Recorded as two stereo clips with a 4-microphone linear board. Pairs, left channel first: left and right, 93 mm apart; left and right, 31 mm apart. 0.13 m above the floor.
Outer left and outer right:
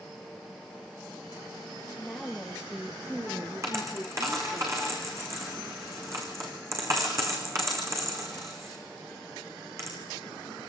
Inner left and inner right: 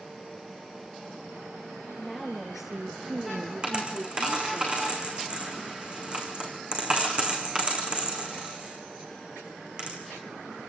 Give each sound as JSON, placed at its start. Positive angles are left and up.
{"t": 2.0, "sound": "a woman speaking", "side_deg": 5, "distance_m": 2.5}
{"t": 3.6, "sound": "a dropped coin", "side_deg": -35, "distance_m": 5.0}